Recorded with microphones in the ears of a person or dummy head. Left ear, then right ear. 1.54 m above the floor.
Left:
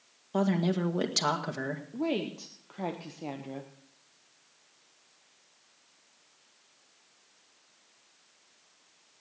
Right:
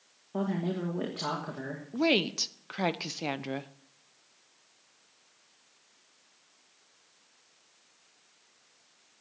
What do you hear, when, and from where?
0.3 s a woman speaking: 85° left, 1.8 m
1.9 s a woman speaking: 55° right (ahead or behind), 0.8 m